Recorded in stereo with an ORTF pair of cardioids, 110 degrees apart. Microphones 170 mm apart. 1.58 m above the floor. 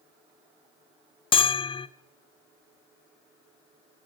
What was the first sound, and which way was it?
A bell, 30° left.